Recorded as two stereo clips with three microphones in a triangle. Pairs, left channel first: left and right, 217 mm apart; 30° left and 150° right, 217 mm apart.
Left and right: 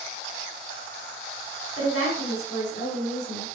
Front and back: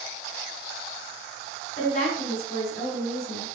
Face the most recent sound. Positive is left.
turn(degrees=80)